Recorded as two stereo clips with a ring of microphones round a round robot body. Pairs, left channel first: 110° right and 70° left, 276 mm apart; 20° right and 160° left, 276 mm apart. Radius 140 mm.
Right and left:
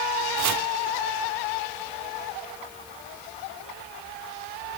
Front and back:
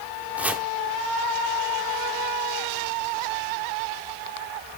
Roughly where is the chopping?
Left.